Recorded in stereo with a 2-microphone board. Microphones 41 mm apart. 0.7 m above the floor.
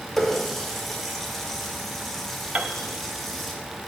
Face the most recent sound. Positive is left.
turn(degrees=-35)  # may be behind; listen again after turning